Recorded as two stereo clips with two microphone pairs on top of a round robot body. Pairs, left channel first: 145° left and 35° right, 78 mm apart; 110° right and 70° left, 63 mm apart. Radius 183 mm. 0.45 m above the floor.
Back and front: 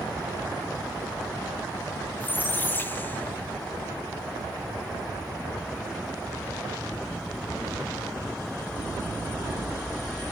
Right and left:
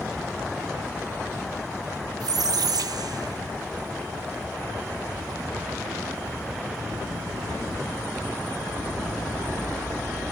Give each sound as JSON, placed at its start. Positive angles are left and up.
{"t": 2.2, "sound": "a squeak", "azimuth_deg": 80, "distance_m": 0.6}